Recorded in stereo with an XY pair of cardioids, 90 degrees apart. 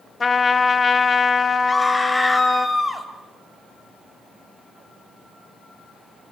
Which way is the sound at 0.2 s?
40° left.